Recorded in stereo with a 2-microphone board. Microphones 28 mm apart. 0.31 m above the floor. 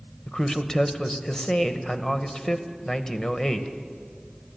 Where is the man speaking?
20° left (ahead or behind), 1.1 m.